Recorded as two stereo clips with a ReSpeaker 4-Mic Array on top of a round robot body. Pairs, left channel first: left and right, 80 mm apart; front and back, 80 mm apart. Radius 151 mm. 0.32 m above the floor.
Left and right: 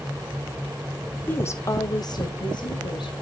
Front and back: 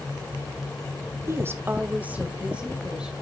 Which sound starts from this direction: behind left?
A woman speaking, at 1.3 s.